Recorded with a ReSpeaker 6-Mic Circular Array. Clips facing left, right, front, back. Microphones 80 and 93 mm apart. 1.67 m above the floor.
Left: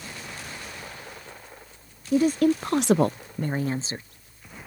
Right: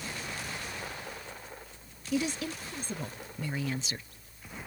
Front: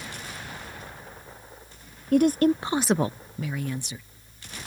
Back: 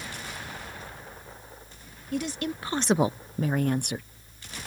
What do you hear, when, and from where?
2.1 s a woman speaking: 35° left; by 4.1 s 150° left